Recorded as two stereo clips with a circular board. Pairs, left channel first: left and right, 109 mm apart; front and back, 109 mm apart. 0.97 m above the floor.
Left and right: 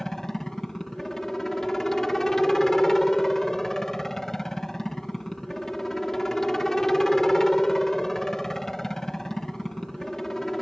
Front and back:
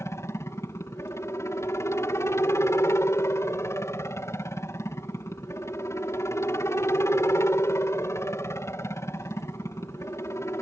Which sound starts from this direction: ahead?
A helicopter, at 0.0 s.